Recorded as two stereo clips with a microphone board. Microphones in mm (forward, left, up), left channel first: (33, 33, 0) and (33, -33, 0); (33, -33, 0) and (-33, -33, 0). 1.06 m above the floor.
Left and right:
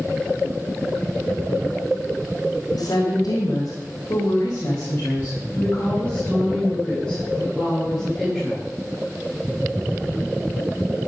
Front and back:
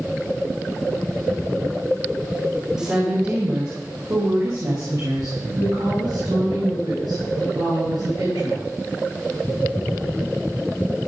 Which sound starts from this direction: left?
A woman speaking, at 2.7 s.